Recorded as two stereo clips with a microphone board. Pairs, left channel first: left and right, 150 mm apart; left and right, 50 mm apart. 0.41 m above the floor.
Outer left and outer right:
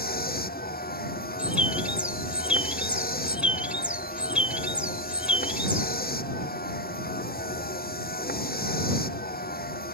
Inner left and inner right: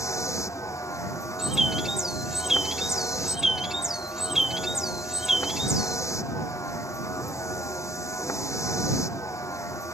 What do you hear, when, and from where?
0.0 s a vehicle: 85° left
1.4 s a bird: 10° right (ahead or behind)